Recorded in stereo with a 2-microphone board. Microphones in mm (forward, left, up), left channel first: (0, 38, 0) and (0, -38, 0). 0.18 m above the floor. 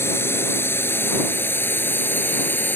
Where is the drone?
30° left (ahead or behind); by 2.8 s 25° left (ahead or behind).